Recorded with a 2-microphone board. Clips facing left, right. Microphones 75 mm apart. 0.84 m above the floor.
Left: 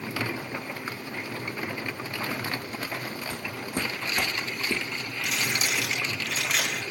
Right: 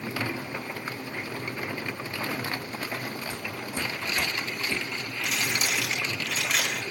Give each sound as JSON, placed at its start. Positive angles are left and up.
{"t": 3.3, "sound": "footsteps", "side_deg": 55, "distance_m": 2.0}
{"t": 5.2, "sound": "crumpling", "side_deg": 0, "distance_m": 4.5}